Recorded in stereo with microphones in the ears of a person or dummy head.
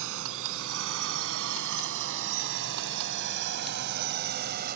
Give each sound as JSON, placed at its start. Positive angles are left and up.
{"t": 0.0, "sound": "a drone", "side_deg": -65}